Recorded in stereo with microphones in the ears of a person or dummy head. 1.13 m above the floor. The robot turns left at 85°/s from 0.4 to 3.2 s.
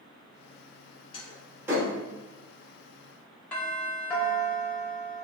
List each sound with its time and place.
1.1 s a door slam: 35° left (ahead or behind), 3 m; by 1.9 s 30° right (ahead or behind), 3 m
3.5 s a doorbell: 5° left (ahead or behind), 2.5 m